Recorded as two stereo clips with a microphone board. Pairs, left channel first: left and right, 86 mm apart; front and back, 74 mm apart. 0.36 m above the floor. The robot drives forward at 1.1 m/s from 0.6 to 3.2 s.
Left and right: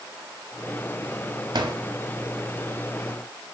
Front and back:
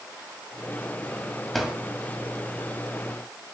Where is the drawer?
85° right, 1.4 m; by 1.8 s 100° right, 1.4 m.